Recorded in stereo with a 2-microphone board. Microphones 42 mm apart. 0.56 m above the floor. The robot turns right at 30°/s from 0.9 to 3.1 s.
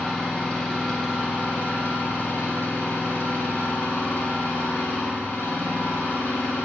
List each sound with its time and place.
0.0 s an engine running: 10° left, 3 m; by 6.7 s 80° left, 3 m